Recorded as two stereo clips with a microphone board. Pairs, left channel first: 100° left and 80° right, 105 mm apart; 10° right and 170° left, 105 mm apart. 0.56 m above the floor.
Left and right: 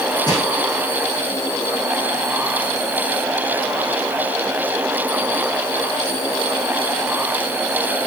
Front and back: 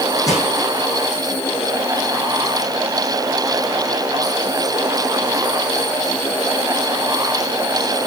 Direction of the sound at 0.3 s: 50° left.